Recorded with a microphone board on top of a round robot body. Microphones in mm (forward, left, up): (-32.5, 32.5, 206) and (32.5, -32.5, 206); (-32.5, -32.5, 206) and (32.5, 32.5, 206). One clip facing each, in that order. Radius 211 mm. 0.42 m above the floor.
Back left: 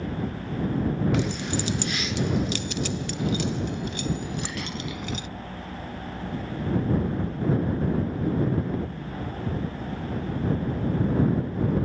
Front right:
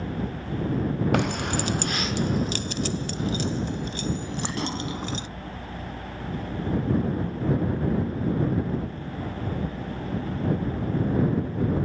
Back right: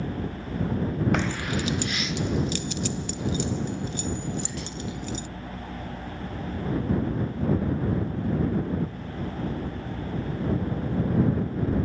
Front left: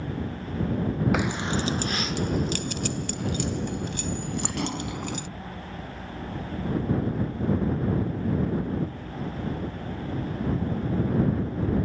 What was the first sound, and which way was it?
Keys jangling, 40° right.